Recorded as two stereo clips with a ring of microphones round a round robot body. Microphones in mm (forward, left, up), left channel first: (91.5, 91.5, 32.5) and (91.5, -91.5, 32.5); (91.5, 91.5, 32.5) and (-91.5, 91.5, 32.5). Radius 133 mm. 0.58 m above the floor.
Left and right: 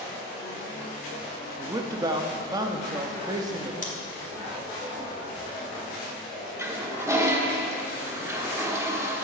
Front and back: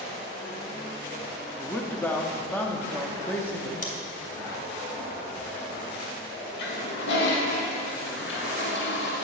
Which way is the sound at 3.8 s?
45° left.